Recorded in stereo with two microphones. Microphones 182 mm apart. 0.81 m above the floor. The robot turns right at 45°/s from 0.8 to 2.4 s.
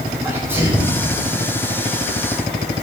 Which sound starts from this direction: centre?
A sneeze, at 0.2 s.